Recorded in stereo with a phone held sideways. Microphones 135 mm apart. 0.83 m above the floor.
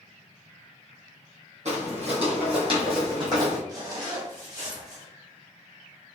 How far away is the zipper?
About 1.4 m.